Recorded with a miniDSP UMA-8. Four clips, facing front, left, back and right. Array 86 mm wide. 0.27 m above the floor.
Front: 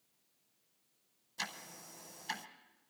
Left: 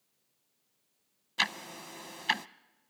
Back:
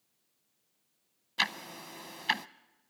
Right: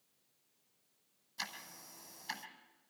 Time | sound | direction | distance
1.4 | ticking | 135° left | 0.6 m